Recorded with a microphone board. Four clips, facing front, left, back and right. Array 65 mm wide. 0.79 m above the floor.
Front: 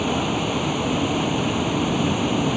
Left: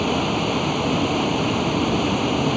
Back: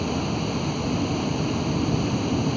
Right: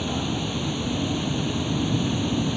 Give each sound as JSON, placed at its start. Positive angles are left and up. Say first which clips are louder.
{"t": 0.0, "sound": "running water", "louder": "left 6 dB, front 4 dB", "azimuth_deg": 70}